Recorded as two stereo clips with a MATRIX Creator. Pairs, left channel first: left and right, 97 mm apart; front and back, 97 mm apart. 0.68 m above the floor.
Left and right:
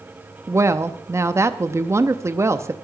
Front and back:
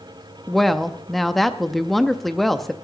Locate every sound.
0.5 s a woman speaking: 85° right, 0.6 m